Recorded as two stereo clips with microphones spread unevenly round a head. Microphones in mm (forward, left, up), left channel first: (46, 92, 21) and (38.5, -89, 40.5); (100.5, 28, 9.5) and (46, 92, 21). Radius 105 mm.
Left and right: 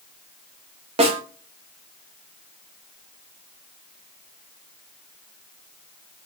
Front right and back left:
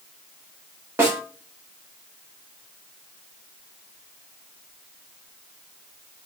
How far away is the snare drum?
About 0.6 m.